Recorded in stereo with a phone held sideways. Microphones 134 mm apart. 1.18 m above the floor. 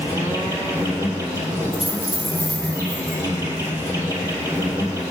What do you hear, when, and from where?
0.0 s an insect: 25° right (ahead or behind), 2.5 m
1.7 s a dropped coin: 40° left (ahead or behind), 3 m